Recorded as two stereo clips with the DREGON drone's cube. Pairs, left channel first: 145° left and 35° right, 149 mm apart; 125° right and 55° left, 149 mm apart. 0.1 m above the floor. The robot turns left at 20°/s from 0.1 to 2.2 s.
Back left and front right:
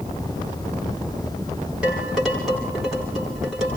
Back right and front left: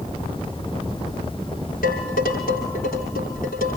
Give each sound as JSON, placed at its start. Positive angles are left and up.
{"t": 1.8, "sound": "dishes clattering", "azimuth_deg": -115, "distance_m": 9.0}